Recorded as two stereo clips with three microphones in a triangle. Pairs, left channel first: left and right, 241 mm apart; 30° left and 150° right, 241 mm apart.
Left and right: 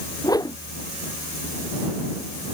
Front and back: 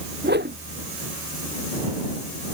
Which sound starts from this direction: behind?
A whoosh, at 0.2 s.